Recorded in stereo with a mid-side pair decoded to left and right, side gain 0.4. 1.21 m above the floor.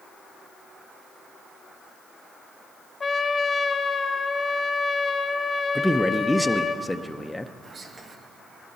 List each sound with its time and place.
3.0 s a trumpet: 40° left, 0.7 m
5.8 s a man speaking: 10° left, 0.7 m
7.6 s whispering: 45° right, 1.7 m